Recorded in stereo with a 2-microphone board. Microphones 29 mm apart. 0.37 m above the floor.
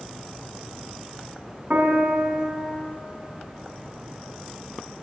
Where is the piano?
50° right (ahead or behind), 1.9 m.